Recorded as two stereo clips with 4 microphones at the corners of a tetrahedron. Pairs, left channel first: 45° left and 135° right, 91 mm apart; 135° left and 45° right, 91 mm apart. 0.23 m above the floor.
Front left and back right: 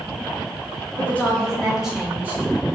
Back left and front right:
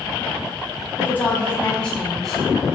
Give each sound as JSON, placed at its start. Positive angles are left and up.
{"t": 1.0, "sound": "a woman speaking", "azimuth_deg": 100, "distance_m": 1.1}